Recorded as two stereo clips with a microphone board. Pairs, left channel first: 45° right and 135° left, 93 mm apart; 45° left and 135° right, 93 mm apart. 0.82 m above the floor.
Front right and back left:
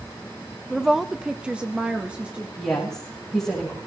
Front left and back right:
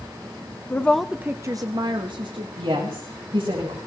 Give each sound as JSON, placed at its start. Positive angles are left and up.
{"t": 0.7, "sound": "a woman speaking", "azimuth_deg": 45, "distance_m": 0.7}
{"t": 2.6, "sound": "a woman speaking", "azimuth_deg": -135, "distance_m": 5.0}